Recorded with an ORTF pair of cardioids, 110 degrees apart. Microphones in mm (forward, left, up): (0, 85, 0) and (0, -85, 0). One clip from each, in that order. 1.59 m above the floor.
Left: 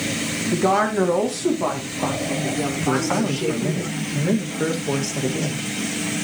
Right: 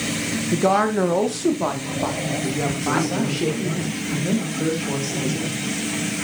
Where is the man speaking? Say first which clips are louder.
Left 2 dB; 30° left, 2.5 m.